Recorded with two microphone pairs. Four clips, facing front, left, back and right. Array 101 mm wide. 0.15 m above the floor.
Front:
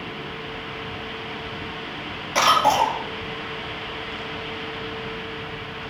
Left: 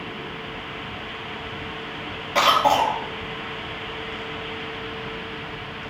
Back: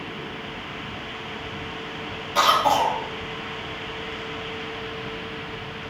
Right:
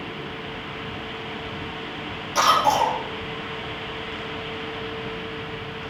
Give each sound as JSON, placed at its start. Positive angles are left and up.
{"t": 2.4, "sound": "a cough", "azimuth_deg": 55, "distance_m": 4.0}